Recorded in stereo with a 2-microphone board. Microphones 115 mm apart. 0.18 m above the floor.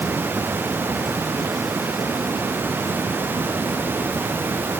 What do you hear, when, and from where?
Only background noise.